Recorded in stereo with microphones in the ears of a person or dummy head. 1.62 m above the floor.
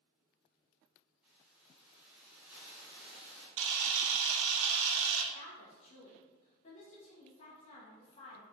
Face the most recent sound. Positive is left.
turn(degrees=35)  # may be behind; listen again after turning